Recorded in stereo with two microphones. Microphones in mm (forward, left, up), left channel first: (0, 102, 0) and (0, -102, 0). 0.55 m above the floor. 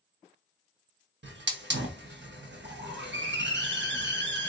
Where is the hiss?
65° right (ahead or behind), 0.8 m.